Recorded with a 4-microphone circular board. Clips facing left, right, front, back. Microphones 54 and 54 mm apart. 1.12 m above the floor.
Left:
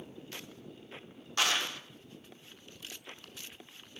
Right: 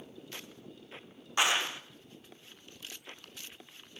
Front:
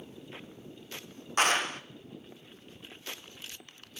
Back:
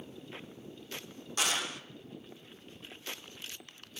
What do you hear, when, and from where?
1.4 s a clap: 20° right, 0.5 m